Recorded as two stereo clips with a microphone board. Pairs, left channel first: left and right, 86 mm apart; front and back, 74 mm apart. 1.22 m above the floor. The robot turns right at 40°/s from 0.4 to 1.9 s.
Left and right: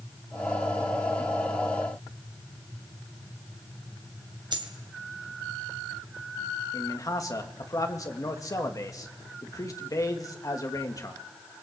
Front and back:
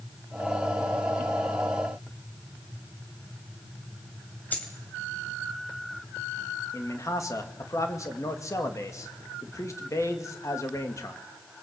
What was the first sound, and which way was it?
A dropped coin, 65° right.